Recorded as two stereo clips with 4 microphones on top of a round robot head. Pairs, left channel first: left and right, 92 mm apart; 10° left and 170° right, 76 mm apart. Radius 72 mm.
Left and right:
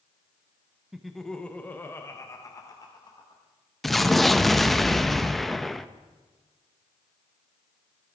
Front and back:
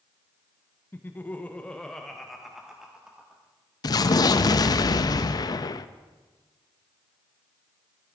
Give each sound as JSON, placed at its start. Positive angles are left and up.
{"t": 0.9, "sound": "laughter", "azimuth_deg": -10, "distance_m": 1.0}
{"t": 3.8, "sound": "an explosion", "azimuth_deg": 0, "distance_m": 0.5}